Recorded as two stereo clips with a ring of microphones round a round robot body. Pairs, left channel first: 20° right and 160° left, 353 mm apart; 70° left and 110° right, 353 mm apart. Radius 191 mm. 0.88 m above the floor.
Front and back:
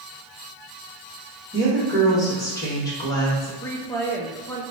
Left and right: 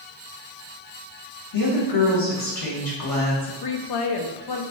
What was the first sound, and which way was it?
A woman speaking, 60° left.